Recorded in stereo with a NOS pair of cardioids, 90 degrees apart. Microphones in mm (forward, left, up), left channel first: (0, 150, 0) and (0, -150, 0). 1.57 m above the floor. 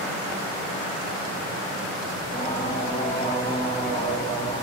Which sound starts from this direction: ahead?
Singing, at 2.2 s.